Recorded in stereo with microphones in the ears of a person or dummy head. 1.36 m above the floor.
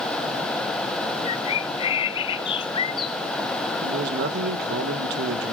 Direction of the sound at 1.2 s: 30° left (ahead or behind).